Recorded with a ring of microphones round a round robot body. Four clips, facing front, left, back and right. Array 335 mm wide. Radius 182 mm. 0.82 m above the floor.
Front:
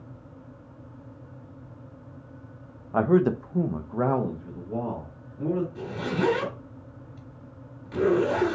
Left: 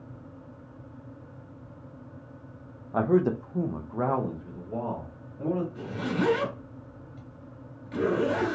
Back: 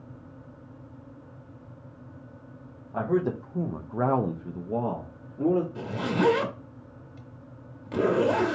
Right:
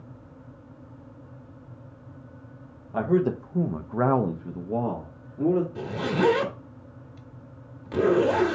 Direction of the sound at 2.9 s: 20° left.